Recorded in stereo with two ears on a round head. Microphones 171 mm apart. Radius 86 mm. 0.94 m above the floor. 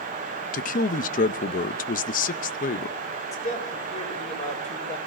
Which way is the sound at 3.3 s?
40° left (ahead or behind).